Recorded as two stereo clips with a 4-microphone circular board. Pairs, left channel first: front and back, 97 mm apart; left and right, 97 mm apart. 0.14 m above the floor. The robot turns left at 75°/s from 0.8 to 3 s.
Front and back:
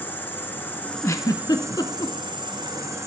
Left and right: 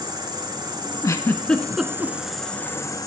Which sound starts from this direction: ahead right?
An insect, at 0.0 s.